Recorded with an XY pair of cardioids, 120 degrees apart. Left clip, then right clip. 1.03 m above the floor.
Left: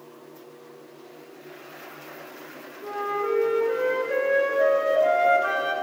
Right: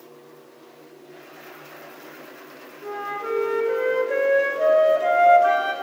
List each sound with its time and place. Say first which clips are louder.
2.8 s a flute: left 2 dB; 10° right, 0.7 m